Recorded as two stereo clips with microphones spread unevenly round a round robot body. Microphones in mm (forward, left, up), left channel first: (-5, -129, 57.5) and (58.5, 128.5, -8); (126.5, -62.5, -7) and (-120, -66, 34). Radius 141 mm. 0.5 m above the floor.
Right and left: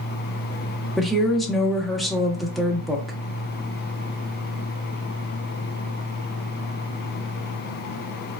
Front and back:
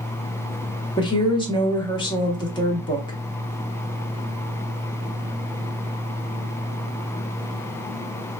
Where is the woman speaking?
15° left, 0.7 m.